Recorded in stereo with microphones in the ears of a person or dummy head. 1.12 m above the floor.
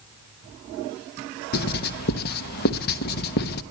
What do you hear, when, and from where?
1.5 s writing: 50° left (ahead or behind), 1.2 m